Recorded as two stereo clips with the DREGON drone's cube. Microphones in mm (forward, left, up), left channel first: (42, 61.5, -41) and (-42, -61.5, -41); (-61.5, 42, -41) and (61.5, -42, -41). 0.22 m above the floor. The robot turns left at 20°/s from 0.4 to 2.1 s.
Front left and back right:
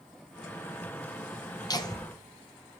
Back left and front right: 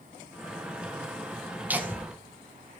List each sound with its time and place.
1.7 s laughter: 35° left, 1.1 m; by 2.0 s 25° left, 1.1 m